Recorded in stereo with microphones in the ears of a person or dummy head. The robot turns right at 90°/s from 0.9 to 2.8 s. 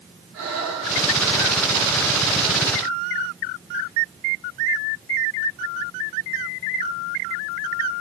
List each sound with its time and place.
0.3 s breathing: 75° right, 2.5 m; by 1.6 s 10° right, 2.5 m